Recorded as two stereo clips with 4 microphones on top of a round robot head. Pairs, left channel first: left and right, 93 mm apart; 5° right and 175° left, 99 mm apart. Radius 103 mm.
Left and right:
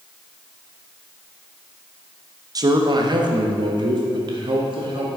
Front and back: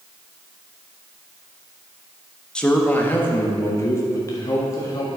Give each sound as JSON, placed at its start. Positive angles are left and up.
{"t": 2.5, "sound": "a man speaking", "azimuth_deg": -85, "distance_m": 1.1}